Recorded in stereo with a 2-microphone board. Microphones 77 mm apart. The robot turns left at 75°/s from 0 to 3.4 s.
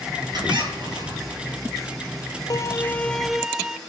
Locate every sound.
0.3 s a squeak: 65° right, 7.5 m; by 1.4 s 140° right, 7.5 m
2.5 s a violin: 60° left, 0.8 m; by 3.8 s 10° right, 0.8 m